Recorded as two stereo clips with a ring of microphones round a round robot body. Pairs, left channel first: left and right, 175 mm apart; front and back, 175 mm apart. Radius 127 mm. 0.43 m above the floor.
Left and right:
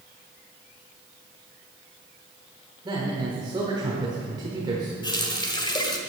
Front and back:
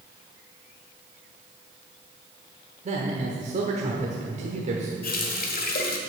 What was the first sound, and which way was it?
A man speaking, 150° right.